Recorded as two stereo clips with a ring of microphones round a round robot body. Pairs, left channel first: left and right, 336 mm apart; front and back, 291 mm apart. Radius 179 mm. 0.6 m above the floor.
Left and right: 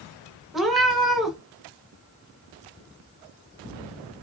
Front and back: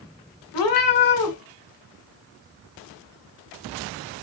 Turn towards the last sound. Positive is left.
turn(degrees=0)